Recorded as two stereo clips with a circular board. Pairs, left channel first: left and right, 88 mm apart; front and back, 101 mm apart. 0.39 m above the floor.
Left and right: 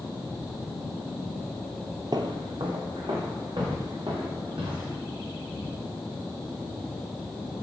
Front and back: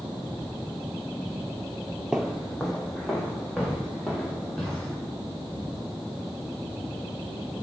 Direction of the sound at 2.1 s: 100° right.